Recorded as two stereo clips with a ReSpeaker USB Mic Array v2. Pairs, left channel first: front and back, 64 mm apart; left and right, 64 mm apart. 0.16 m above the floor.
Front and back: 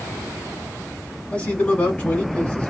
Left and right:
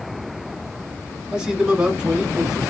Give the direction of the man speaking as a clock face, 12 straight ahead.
1 o'clock.